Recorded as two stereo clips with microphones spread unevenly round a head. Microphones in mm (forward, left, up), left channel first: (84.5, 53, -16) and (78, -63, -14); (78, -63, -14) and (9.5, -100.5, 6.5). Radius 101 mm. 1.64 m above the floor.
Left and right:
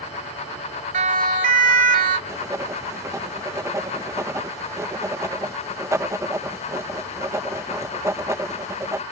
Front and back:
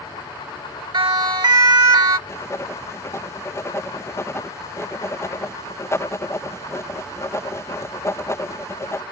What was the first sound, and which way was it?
A siren, 135° right.